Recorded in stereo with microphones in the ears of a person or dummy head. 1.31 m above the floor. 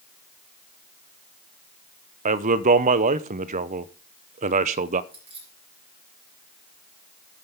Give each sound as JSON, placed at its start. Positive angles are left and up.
{"t": 2.2, "sound": "a man speaking", "side_deg": -40, "distance_m": 0.6}
{"t": 5.1, "sound": "keys jangling", "side_deg": -10, "distance_m": 6.0}